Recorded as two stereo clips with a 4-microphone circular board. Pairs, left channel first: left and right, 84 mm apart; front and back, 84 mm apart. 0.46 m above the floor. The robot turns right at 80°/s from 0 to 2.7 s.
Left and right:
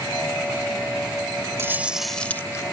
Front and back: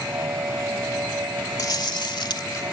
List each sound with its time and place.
1.6 s chewing: 40° right; by 2.6 s 45° left